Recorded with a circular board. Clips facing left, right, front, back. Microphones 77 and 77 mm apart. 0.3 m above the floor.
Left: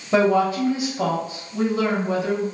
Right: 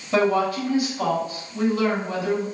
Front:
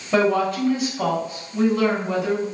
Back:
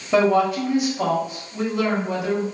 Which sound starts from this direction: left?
A woman speaking, at 0.1 s.